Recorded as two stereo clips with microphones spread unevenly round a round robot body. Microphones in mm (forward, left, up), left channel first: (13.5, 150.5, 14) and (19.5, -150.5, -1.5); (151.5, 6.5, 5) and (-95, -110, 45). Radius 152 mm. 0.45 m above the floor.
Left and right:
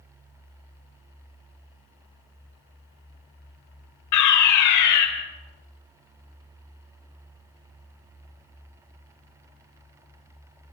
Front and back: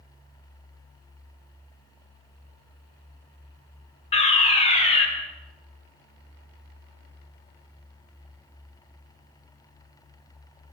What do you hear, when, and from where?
4.1 s a fire alarm: 85° left, 3 m